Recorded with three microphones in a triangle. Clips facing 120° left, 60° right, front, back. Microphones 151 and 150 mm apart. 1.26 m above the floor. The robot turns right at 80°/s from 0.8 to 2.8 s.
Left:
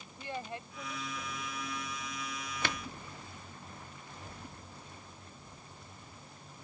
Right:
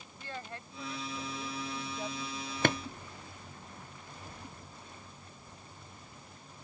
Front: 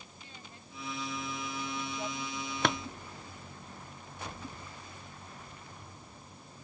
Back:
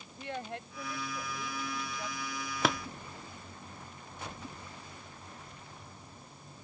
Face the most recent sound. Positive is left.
turn(degrees=-80)